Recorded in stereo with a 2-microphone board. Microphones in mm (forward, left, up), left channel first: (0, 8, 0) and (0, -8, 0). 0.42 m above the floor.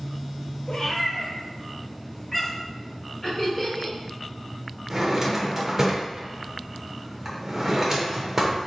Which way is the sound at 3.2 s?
15° left (ahead or behind).